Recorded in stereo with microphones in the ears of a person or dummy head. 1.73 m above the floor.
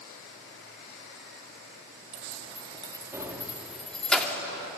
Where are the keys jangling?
45° right (ahead or behind), 2.5 m; by 4.4 s 10° left (ahead or behind), 3.5 m.